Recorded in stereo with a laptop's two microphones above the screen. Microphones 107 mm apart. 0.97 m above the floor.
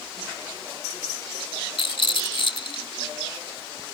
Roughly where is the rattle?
Left.